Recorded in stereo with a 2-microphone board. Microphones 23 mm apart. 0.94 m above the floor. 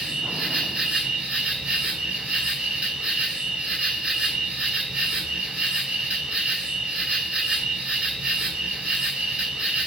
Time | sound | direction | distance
0.0 | an insect | 50° right (ahead or behind) | 1.9 m